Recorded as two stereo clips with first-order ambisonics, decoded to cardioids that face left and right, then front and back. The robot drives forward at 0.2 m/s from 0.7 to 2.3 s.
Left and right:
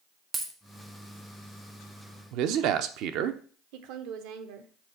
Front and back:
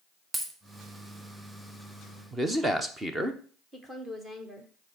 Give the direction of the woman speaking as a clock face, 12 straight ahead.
3 o'clock.